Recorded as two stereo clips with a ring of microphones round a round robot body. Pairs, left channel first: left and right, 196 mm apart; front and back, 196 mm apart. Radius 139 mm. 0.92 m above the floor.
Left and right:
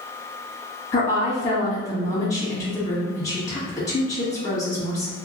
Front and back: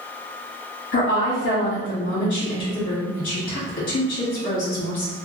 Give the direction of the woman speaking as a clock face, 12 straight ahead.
11 o'clock.